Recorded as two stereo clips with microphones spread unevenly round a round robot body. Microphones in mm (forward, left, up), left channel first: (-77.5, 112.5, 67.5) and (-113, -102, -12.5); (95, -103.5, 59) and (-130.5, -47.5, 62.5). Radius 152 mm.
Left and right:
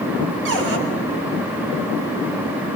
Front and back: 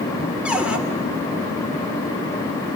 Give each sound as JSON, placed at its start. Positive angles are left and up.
{"t": 0.5, "sound": "a cupboard door", "azimuth_deg": -110, "distance_m": 2.5}